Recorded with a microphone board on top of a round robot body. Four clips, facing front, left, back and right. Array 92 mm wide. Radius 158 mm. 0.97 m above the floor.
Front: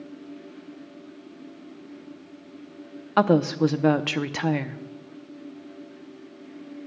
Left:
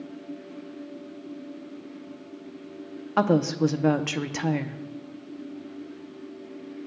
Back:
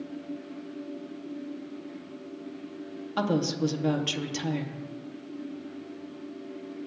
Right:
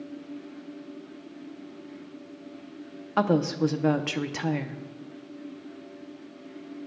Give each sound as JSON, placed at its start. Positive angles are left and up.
{"t": 3.2, "sound": "a woman speaking", "azimuth_deg": 10, "distance_m": 0.7}